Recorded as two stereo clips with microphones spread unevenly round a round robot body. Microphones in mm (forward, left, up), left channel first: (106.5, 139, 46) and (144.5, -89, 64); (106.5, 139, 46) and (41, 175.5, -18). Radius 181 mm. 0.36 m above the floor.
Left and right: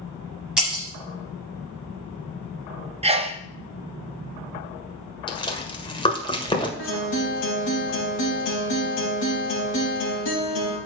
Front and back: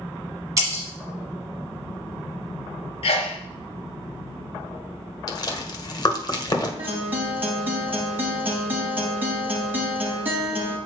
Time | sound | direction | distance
0.6 | breaking glass | 170° right | 0.8 m
3.0 | a sneeze | 45° right | 1.0 m
5.3 | chewing | 40° left | 1.8 m
6.8 | a guitar | 120° left | 3 m